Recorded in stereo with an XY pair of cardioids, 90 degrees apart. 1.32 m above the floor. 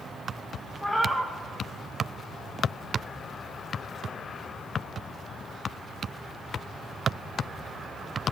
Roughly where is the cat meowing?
Ahead.